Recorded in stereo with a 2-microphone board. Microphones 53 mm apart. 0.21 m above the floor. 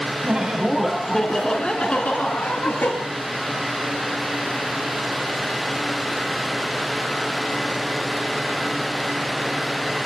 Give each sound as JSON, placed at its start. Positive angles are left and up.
{"t": 0.2, "sound": "laughter", "side_deg": -30, "distance_m": 1.6}